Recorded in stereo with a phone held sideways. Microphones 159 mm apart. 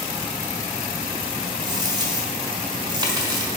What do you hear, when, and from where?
1.6 s a dropped coin: 25° right (ahead or behind), 1.4 m